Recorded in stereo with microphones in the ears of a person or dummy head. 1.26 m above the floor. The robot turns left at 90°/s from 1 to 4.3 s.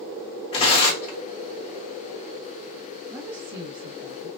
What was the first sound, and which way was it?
Tearing paper, 30° left (ahead or behind).